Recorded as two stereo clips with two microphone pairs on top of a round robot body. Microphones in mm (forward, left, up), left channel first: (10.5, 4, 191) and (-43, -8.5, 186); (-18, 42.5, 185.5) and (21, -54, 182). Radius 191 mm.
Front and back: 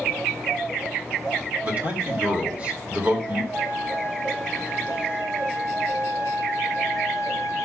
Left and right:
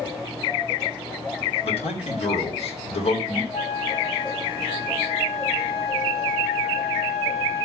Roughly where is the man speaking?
Behind left.